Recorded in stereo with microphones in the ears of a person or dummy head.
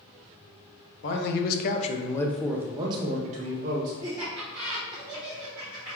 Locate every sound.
1.0 s a man speaking: 70° left (ahead or behind), 0.9 m; by 3.9 s 50° right (ahead or behind), 1.1 m
4.0 s laughter: 10° right (ahead or behind), 1.1 m